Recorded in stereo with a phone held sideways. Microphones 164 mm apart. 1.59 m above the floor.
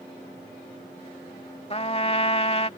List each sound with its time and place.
1.7 s a trumpet: 40° left (ahead or behind)